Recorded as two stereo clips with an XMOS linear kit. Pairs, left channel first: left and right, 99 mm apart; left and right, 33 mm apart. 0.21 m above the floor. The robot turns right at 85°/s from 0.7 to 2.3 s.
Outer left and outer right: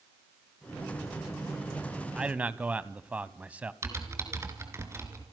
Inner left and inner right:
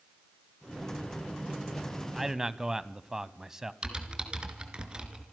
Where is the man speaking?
10° right (ahead or behind), 1.1 m; by 3.7 s 15° right (ahead or behind), 1.1 m.